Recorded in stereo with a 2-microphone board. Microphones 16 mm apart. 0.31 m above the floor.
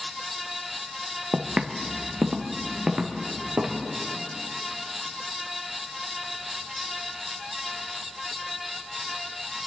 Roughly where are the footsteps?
Right.